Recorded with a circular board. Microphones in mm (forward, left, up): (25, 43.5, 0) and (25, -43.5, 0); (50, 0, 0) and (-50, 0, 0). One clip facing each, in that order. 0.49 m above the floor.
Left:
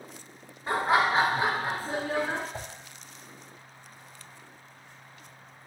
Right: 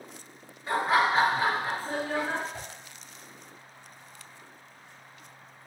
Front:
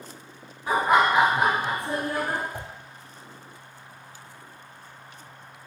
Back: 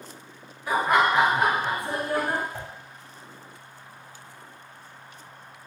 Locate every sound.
0.7 s laughter: 45° left, 1.8 m; by 2.4 s 175° right, 1.4 m
2.5 s a whoosh: 70° left, 0.6 m